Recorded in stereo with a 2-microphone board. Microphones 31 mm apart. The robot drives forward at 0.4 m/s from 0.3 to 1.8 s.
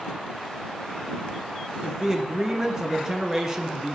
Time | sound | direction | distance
1.8 | a man speaking | 20° right (ahead or behind) | 1.0 m